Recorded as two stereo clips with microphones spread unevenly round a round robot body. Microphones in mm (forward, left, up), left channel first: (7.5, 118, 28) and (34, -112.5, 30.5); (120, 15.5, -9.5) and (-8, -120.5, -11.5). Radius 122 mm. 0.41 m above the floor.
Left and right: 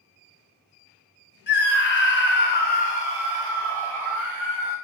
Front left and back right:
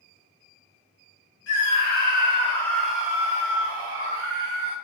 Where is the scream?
65° left, 1.7 m; by 4.8 s 175° right, 2.5 m.